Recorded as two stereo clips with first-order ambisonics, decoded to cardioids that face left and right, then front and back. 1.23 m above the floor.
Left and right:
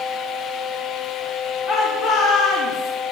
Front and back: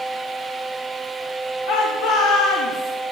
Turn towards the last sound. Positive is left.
turn(degrees=45)